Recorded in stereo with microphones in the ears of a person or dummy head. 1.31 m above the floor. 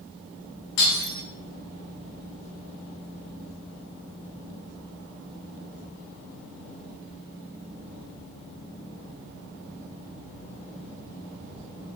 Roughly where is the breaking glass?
Left.